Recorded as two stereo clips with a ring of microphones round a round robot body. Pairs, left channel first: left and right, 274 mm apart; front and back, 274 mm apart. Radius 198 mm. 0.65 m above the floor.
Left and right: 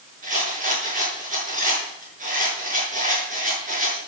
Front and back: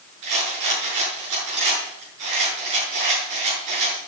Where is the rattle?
160° right, 7.5 m.